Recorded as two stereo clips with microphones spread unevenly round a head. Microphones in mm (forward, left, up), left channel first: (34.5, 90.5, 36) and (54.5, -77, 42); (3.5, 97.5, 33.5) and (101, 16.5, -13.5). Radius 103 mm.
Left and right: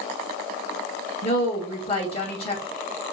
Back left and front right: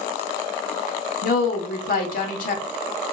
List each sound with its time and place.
1.2 s a woman speaking: 160° left, 1.1 m